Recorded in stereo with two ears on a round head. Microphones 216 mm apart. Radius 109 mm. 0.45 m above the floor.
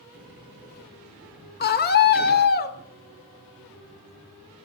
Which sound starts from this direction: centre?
A sliding door, at 0.1 s.